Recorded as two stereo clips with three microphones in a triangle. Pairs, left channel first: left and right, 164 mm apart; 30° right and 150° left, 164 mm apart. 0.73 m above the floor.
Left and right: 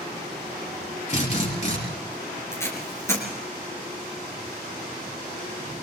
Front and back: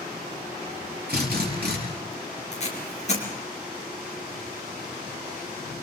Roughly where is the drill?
Behind left.